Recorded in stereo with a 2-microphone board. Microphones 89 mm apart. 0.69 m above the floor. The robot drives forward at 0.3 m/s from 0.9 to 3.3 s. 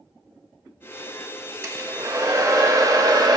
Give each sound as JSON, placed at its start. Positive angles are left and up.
{"t": 1.6, "sound": "a hair dryer", "side_deg": -35, "distance_m": 1.7}